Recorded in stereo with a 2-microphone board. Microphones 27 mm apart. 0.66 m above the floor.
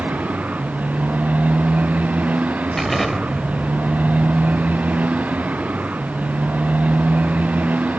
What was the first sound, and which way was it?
A motorcycle, 90° right.